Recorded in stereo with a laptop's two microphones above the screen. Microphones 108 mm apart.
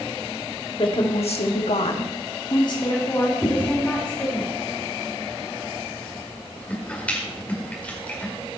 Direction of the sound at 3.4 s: 10° left (ahead or behind).